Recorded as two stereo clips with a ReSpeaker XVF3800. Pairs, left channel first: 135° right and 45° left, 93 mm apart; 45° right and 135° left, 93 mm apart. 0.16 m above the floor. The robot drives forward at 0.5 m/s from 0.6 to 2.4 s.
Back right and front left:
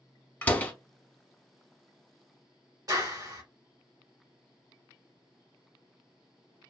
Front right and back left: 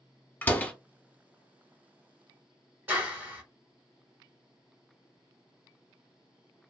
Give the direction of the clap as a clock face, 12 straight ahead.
10 o'clock.